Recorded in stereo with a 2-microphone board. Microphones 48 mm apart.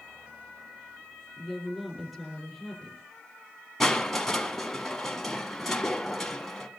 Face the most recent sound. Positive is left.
turn(degrees=5)  # may be behind; listen again after turning